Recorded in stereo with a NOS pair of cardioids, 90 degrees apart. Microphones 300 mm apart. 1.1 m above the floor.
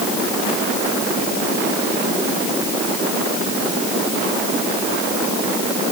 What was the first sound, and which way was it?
Only background noise.